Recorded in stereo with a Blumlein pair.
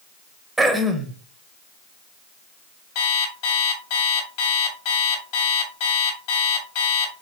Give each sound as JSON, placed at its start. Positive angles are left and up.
{"t": 0.6, "sound": "throat clearing", "azimuth_deg": -5, "distance_m": 0.7}
{"t": 3.0, "sound": "an alarm clock", "azimuth_deg": 50, "distance_m": 2.0}